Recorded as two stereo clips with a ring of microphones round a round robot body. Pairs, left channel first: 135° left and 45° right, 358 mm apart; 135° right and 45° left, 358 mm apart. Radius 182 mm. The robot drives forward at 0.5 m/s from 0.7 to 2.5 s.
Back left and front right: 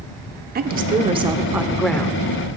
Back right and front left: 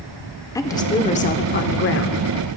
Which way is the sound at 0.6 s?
65° right.